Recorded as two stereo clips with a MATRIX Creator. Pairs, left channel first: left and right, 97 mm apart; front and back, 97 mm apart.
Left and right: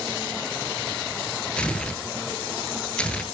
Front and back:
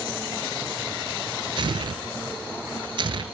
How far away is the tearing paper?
About 2 m.